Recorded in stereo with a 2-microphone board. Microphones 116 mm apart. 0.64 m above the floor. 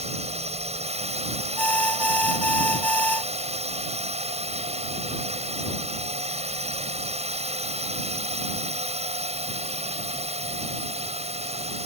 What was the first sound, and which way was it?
A drone, 65° right (ahead or behind).